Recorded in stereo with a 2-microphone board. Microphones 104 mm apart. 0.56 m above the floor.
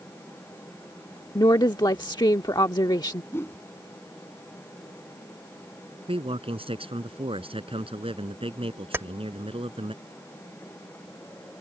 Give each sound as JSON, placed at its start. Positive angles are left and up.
{"t": 1.4, "sound": "a woman speaking", "side_deg": 45}
{"t": 3.3, "sound": "a whoosh", "side_deg": 25}
{"t": 6.1, "sound": "a man speaking", "side_deg": -65}
{"t": 8.9, "sound": "keys jangling", "side_deg": -25}